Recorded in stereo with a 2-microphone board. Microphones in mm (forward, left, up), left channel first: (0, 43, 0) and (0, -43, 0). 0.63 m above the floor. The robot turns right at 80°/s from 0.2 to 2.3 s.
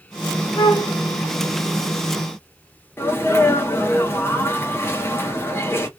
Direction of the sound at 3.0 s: 25° left (ahead or behind).